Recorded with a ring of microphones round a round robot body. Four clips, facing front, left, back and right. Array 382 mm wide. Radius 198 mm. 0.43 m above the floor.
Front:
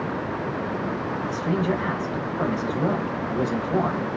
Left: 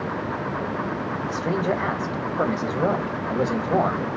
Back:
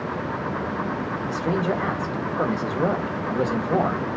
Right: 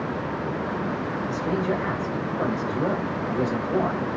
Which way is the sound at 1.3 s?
125° left.